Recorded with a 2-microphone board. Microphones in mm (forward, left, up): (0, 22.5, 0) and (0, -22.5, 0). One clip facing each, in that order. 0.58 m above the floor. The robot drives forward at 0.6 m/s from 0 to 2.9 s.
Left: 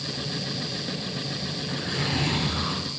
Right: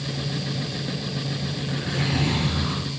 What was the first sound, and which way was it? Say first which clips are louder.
A zipper: right 2 dB; 5° right (ahead or behind).